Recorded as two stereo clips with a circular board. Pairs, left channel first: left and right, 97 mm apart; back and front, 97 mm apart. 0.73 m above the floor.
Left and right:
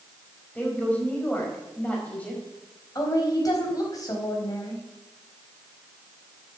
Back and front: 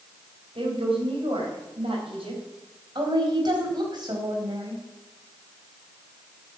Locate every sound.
0.6 s a woman speaking: 15° left, 4.5 m
3.0 s a woman speaking: 40° left, 4 m